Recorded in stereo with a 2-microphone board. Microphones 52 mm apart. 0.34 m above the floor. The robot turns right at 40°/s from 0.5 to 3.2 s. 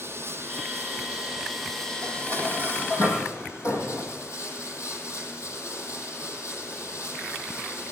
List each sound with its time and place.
0.0 s running water: 45° right, 8.5 m; by 7.9 s 60° left, 8.5 m
2.0 s dishes clattering: 30° left, 9 m; by 4.1 s 75° left, 9 m